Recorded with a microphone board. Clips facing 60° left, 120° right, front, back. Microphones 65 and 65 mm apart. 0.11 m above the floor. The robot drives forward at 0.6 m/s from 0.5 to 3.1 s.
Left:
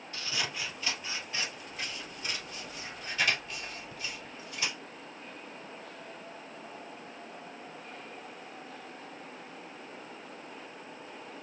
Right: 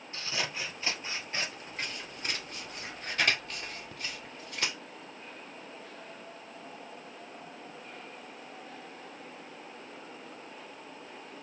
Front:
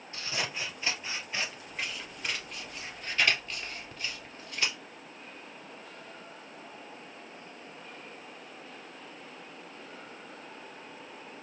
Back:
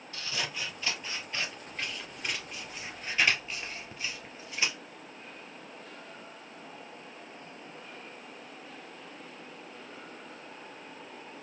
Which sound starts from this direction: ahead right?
Scissors, at 0.1 s.